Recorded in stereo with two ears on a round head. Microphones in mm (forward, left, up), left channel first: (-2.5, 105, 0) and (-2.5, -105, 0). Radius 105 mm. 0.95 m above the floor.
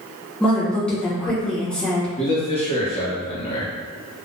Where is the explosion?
I don't hear an explosion.